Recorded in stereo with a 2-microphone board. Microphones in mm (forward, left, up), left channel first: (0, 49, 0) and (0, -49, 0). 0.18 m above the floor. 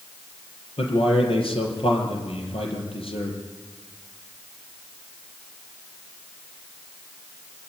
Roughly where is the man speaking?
Left.